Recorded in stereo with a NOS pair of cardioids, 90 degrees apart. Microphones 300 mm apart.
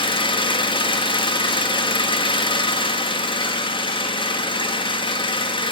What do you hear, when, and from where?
0.0 s an engine running: 15° left, 2 m